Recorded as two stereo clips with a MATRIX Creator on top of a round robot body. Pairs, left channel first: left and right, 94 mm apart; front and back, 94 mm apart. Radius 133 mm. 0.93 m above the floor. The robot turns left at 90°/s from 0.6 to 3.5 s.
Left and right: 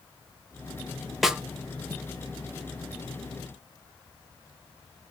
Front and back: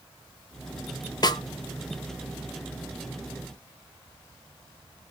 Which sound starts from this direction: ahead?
A snare drum, at 1.2 s.